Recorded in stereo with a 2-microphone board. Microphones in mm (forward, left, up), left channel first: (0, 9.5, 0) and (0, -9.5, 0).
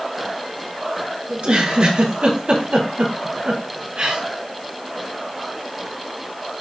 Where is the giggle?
75° right (ahead or behind), 3 m.